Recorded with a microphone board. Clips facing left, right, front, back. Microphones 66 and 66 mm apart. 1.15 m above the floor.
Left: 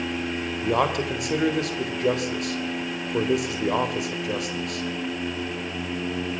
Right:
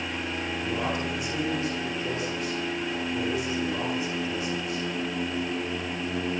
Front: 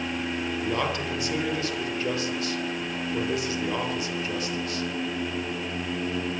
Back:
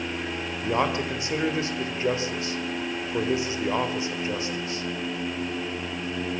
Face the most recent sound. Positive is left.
turn(degrees=115)